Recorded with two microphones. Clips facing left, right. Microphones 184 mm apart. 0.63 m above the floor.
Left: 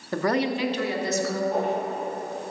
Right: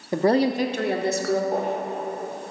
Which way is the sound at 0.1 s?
20° right (ahead or behind).